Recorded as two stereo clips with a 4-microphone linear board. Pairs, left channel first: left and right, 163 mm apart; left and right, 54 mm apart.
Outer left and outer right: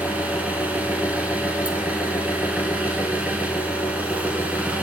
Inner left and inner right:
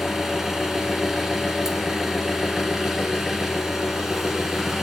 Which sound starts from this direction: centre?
An engine running, at 0.0 s.